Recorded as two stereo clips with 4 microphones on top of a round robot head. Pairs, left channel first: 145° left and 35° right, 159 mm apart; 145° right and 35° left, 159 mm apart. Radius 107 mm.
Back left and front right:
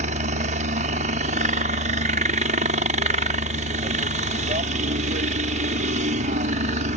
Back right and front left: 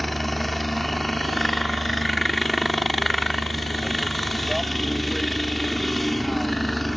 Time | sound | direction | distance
0.0 | a helicopter | 55° right | ?